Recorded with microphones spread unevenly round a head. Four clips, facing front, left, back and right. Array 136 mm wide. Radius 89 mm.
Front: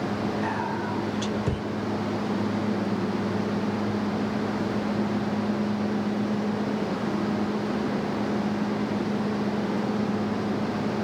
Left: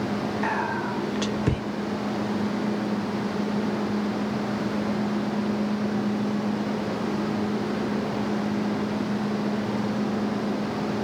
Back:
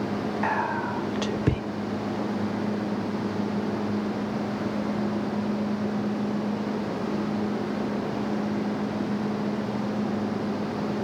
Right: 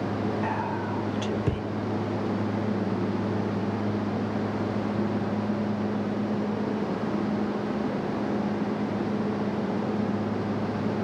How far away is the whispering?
About 0.7 m.